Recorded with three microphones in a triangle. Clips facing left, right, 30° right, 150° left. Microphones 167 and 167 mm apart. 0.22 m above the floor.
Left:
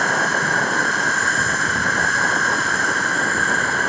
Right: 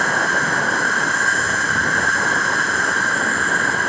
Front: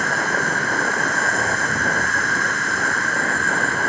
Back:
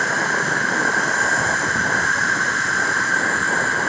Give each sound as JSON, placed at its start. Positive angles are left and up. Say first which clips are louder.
{"t": 0.0, "sound": "an insect", "louder": "even, even", "azimuth_deg": 140, "distance_m": 3.0}